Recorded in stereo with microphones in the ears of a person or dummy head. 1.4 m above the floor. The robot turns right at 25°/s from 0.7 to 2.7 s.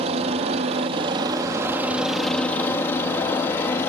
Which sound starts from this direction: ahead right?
A helicopter, at 0.0 s.